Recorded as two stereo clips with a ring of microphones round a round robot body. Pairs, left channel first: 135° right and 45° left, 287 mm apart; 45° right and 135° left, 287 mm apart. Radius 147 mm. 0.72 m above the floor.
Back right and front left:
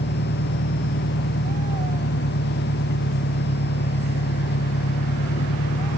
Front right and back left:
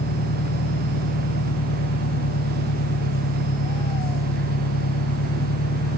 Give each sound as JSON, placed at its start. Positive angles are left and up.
{"t": 0.0, "sound": "an engine running", "azimuth_deg": -80}